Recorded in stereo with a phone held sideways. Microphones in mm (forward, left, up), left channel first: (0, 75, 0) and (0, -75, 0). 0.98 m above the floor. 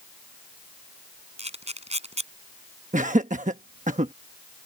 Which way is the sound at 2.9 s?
55° right (ahead or behind).